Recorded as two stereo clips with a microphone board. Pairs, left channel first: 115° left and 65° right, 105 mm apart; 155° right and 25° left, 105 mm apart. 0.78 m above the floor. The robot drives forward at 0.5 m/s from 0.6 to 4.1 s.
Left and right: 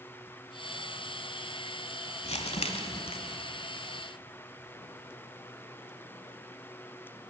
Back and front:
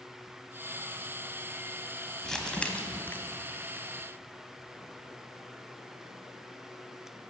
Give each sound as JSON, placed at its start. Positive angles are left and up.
{"t": 2.2, "sound": "crumpling", "azimuth_deg": 115, "distance_m": 1.3}